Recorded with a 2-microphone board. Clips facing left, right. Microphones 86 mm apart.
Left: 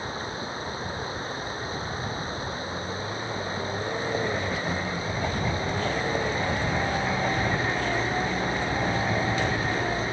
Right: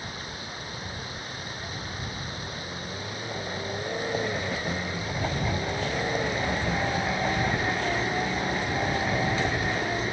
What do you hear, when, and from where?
0.0 s running water: 30° left (ahead or behind)